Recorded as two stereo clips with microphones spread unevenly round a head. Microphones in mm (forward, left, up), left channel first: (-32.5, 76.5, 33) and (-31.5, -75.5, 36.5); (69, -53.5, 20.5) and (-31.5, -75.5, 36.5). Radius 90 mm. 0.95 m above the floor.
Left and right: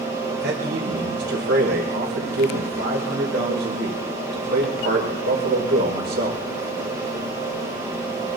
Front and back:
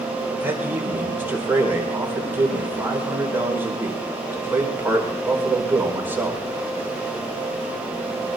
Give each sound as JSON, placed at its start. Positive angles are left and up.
{"t": 0.4, "sound": "a man speaking", "azimuth_deg": -95, "distance_m": 5.0}